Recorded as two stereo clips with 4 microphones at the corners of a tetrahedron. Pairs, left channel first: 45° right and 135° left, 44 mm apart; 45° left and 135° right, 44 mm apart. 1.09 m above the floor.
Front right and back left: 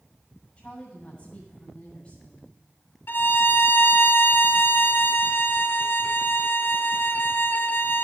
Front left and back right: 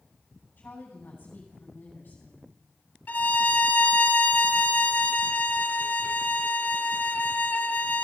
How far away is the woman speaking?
About 6.5 m.